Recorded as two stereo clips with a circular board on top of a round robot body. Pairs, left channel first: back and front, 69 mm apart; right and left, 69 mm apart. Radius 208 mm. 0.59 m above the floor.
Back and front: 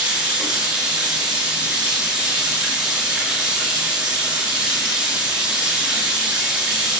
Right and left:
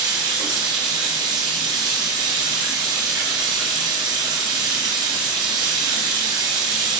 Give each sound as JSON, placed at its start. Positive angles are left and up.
{"t": 0.0, "sound": "running water", "azimuth_deg": 70, "distance_m": 0.9}